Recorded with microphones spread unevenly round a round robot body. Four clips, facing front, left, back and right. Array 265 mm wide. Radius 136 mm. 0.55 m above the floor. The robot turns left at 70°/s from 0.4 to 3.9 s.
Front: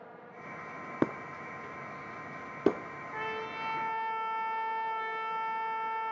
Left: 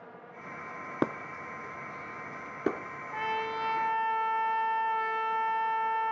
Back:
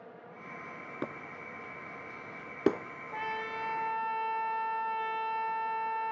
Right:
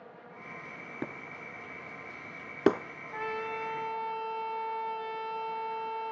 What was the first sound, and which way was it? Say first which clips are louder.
Breaking glass: left 9 dB, front 9 dB; 35° left.